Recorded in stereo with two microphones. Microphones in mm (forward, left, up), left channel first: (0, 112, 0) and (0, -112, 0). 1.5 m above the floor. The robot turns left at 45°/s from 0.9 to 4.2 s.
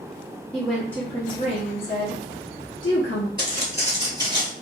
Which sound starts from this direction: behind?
A woman speaking, at 0.5 s.